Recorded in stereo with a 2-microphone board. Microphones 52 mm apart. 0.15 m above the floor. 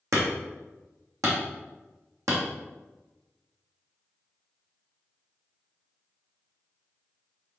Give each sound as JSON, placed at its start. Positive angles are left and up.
{"t": 0.1, "sound": "hammering", "side_deg": -80, "distance_m": 2.5}